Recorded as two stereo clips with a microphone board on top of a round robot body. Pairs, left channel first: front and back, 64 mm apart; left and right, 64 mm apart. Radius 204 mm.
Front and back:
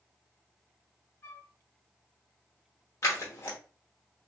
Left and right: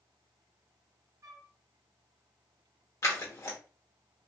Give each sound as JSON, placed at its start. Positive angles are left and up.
{"t": 1.2, "sound": "a flute", "azimuth_deg": -55, "distance_m": 0.7}
{"t": 3.0, "sound": "scissors", "azimuth_deg": 45, "distance_m": 1.0}